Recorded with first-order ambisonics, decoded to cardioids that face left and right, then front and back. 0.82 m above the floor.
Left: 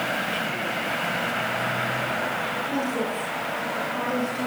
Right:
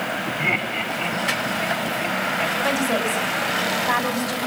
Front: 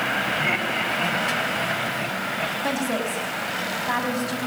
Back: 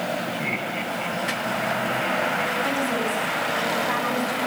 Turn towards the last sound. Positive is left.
turn(degrees=-60)